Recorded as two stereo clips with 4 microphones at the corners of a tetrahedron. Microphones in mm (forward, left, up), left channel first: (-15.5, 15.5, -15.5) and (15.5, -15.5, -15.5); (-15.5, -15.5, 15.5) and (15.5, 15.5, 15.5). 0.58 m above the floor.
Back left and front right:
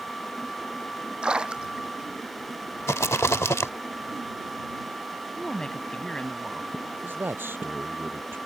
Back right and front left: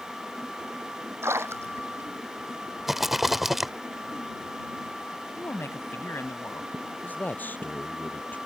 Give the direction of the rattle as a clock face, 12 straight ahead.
8 o'clock.